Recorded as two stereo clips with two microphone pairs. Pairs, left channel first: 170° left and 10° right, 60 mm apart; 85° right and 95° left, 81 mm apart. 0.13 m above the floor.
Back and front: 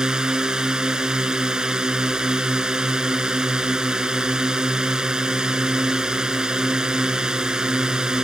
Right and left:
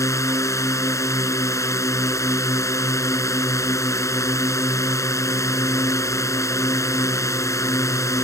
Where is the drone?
80° right.